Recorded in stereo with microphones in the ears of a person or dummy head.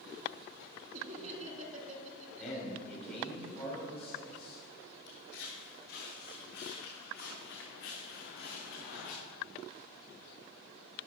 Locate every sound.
0.9 s laughter: 45° right (ahead or behind), 2.5 m
2.4 s a man speaking: 5° left (ahead or behind), 3.5 m
5.1 s footsteps: 60° left (ahead or behind), 2.5 m; by 9.2 s 55° left (ahead or behind), 4.5 m